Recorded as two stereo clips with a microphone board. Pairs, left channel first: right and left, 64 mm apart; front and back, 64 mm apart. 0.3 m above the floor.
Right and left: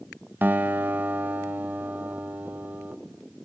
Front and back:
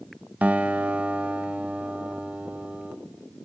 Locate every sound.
0.4 s a guitar: 130° left, 1.2 m